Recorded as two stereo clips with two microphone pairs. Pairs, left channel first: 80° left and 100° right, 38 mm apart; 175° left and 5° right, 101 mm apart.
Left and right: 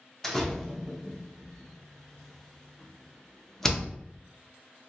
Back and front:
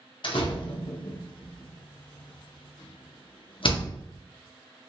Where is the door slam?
160° left, 0.5 m.